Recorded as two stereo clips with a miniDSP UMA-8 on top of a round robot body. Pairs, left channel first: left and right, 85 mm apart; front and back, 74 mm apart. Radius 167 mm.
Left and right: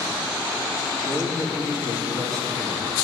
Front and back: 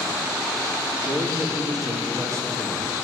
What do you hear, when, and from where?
1.0 s a man speaking: 165° right, 2 m; by 3.0 s 125° right, 3 m